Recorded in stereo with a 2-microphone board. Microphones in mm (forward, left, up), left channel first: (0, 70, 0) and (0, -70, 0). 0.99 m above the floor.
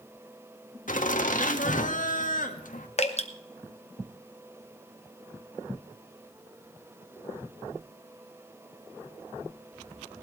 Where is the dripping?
50° left (ahead or behind), 1.1 m.